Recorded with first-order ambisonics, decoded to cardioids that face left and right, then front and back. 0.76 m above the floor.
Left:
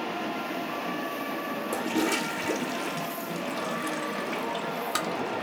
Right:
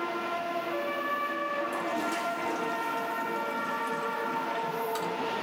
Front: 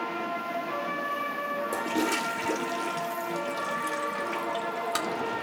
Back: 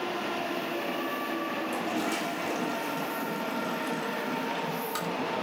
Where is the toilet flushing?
60° left, 1.1 m.